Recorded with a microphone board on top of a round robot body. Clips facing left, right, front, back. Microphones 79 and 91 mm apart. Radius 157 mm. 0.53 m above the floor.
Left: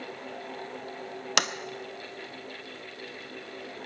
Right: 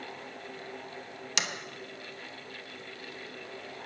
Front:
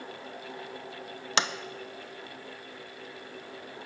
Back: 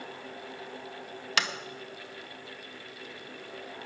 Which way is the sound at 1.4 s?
65° left.